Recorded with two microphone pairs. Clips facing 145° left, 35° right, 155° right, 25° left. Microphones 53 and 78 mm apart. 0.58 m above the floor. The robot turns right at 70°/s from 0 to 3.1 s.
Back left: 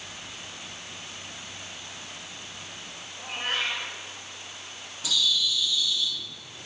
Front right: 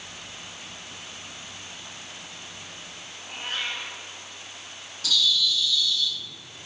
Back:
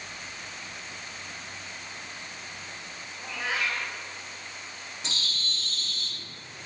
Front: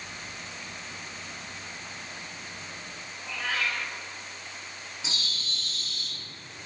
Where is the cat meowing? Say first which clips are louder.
Back left 3 dB, even; 135° left, 1.5 m.